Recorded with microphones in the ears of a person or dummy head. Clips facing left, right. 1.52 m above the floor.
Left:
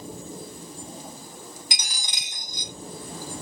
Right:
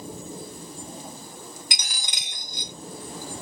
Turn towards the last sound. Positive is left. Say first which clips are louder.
# even
turn(degrees=-50)  # may be behind; listen again after turning